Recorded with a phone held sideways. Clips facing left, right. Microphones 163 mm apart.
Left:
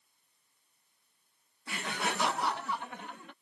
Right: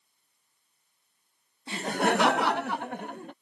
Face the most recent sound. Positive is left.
turn(degrees=-45)  # may be behind; listen again after turning